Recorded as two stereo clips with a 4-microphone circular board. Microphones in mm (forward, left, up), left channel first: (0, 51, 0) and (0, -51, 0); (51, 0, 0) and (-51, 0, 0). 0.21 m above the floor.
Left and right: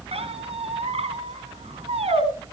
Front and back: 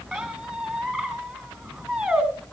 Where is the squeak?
90° right, 3 m.